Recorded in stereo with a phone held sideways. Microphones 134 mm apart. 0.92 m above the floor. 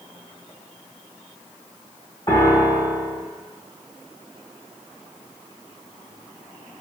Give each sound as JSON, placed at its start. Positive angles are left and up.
{"t": 2.3, "sound": "a piano", "side_deg": 40, "distance_m": 1.9}